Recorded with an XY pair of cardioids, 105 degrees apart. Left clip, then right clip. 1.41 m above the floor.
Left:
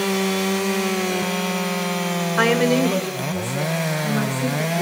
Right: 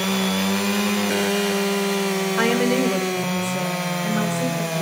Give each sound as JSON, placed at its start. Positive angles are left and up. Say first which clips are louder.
{"t": 2.4, "sound": "a woman speaking", "louder": "left 3 dB", "azimuth_deg": 25, "distance_m": 0.7}